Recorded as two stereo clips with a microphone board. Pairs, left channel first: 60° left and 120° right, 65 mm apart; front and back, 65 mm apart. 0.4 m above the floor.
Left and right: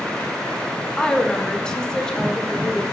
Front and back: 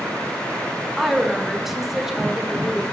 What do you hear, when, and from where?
1.0 s a woman speaking: 110° left, 0.9 m